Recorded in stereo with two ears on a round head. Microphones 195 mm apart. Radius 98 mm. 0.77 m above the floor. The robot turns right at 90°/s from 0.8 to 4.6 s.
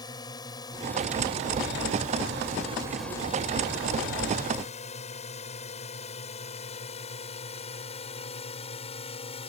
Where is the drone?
20° left (ahead or behind); by 9.5 s 30° left (ahead or behind).